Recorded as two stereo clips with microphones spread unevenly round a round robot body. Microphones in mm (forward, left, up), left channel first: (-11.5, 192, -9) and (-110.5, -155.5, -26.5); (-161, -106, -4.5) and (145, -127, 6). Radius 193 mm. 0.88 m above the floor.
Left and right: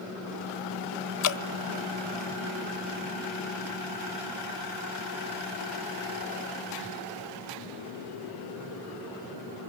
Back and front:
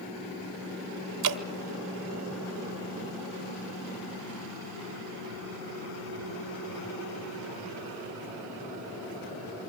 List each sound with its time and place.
1.2 s dripping: 30° left, 1.3 m